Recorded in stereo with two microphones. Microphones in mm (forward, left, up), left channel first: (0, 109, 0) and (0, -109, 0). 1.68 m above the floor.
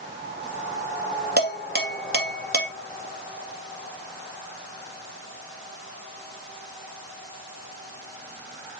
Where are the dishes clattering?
45° right (ahead or behind), 2 m.